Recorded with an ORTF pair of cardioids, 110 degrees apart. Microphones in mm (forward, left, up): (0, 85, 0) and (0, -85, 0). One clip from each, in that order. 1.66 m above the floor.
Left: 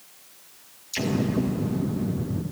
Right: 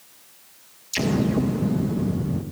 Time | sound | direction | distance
0.9 | an explosion | 25° right | 1.8 m